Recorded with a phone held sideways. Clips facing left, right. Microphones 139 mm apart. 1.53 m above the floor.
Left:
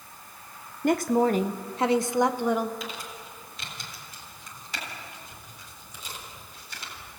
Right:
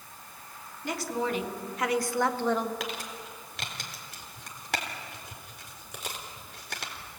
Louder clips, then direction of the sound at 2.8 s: Right 1 dB; 75° right (ahead or behind).